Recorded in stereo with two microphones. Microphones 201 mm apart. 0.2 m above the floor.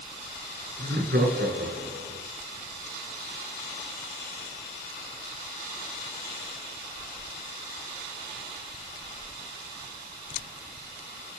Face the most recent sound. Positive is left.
turn(degrees=-65)  # may be behind; listen again after turning